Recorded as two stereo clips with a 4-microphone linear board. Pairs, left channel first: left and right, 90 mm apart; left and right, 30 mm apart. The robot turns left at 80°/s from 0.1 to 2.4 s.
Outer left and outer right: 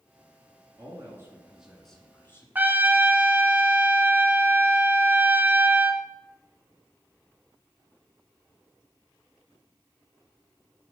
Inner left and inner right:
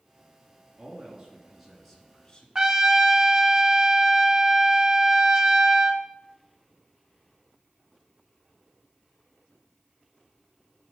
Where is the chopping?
I don't hear chopping.